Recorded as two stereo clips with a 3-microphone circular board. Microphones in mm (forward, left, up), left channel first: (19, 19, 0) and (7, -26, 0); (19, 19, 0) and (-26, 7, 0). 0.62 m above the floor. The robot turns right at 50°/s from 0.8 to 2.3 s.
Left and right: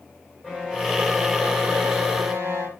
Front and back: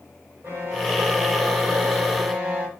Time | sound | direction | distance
0.4 | a violin | 170° right | 3 m